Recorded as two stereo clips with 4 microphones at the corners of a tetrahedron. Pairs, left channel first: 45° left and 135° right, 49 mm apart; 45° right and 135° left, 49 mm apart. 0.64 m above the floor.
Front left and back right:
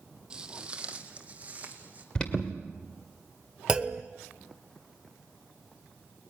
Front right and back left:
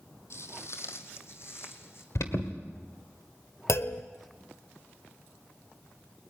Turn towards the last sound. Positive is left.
turn(degrees=-60)